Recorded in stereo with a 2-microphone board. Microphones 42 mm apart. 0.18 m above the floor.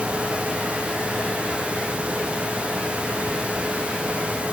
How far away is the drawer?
I don't hear a drawer.